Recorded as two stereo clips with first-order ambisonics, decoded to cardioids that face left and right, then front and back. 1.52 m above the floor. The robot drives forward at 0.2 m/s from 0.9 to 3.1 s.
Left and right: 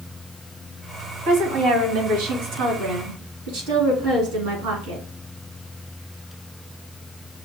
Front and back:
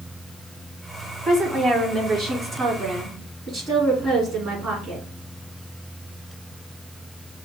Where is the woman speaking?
105° right, 2.5 m; by 5.0 s 110° right, 2.5 m.